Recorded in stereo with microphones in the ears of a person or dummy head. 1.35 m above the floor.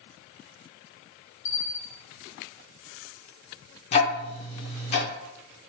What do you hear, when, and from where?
1.4 s a bell: 35° left (ahead or behind), 0.9 m
3.9 s ticking: 40° left (ahead or behind), 0.6 m